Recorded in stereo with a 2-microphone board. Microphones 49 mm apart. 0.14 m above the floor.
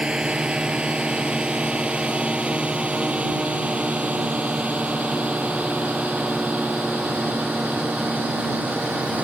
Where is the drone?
20° right (ahead or behind); by 9.2 s 35° right (ahead or behind).